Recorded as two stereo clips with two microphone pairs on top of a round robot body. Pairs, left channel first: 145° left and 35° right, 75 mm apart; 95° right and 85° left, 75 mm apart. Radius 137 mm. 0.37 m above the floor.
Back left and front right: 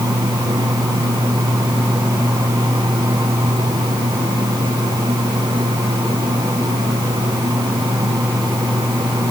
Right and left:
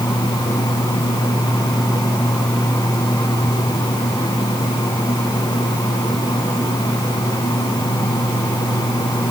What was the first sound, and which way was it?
Only background noise.